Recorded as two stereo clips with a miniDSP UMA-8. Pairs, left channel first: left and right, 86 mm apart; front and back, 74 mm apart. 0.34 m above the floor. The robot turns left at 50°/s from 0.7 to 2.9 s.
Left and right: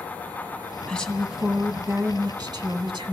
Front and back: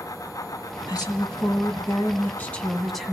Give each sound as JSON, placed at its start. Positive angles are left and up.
{"t": 0.9, "sound": "a woman speaking", "azimuth_deg": 15, "distance_m": 2.5}